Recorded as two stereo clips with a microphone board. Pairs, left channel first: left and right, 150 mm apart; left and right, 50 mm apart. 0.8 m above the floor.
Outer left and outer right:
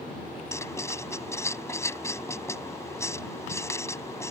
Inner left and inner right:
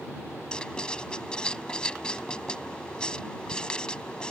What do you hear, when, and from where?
0.5 s writing: 15° left (ahead or behind)